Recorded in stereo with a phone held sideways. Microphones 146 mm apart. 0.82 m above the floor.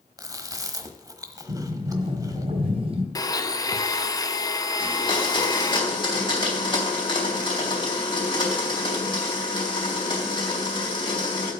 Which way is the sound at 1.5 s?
40° right (ahead or behind).